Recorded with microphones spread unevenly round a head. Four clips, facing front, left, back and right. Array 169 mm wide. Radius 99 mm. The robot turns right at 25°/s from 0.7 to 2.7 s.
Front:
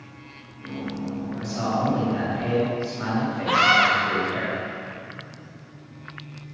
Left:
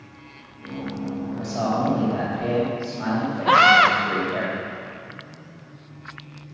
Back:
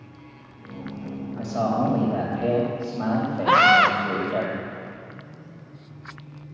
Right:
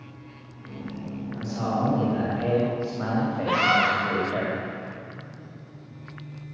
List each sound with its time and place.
1.4 s a man speaking: 165° left, 4 m; by 4.5 s 160° right, 4 m
3.5 s a scream: 140° left, 1.1 m